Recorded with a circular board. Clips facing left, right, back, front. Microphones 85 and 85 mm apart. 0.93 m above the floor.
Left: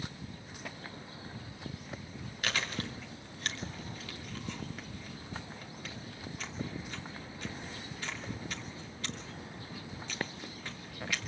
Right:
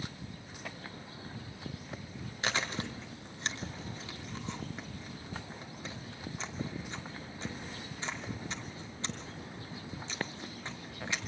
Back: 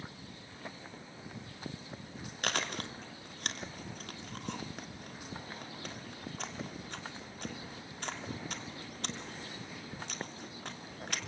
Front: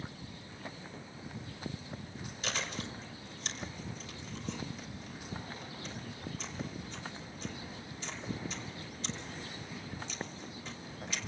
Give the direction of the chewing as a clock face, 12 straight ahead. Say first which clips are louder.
Right 1 dB, back 3 dB; 5 o'clock.